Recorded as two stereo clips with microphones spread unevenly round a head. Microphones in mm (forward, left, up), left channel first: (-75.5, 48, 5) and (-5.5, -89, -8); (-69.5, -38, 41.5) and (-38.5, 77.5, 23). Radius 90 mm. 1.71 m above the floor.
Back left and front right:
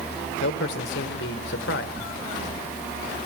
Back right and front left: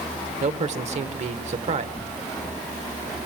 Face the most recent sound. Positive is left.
turn(degrees=-20)